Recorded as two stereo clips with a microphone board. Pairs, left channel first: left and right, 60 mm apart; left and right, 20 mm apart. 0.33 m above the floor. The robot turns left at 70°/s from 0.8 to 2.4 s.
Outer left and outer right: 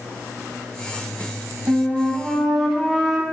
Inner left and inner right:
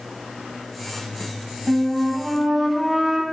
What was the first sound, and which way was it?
A flute, 130° right.